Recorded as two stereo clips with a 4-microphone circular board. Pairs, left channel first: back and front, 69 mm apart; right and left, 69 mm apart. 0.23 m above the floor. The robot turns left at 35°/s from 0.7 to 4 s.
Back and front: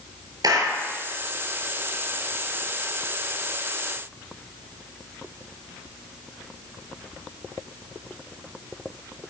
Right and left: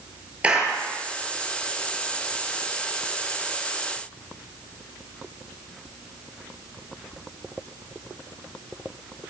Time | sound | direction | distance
0.4 | a clap | 20° left | 4.5 m